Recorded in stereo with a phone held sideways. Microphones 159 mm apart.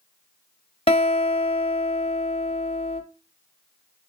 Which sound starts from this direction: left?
A guitar, at 0.9 s.